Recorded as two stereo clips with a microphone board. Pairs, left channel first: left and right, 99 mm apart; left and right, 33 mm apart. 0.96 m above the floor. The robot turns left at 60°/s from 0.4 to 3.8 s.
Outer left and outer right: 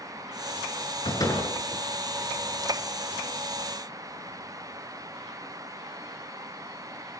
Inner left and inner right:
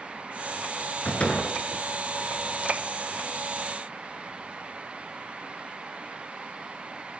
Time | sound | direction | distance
1.1 | a door slam | 45° left (ahead or behind) | 8.5 m